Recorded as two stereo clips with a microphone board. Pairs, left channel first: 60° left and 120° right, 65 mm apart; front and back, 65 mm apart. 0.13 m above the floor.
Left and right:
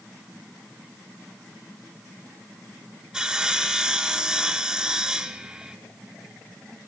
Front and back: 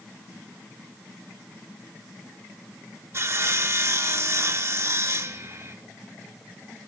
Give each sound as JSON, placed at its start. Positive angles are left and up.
{"t": 3.1, "sound": "sawing", "azimuth_deg": 165, "distance_m": 0.8}